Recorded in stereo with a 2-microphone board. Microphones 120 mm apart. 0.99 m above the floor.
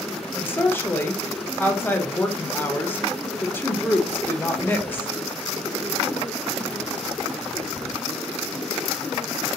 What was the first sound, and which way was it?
A woman speaking, 20° left (ahead or behind).